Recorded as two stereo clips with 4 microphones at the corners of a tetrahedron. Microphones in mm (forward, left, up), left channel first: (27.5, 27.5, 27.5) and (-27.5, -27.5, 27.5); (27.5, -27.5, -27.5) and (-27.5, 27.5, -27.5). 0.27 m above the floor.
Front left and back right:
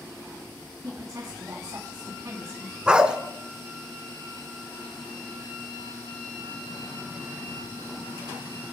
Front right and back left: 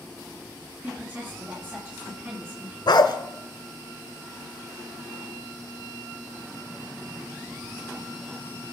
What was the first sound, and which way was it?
A woman speaking, 170° right.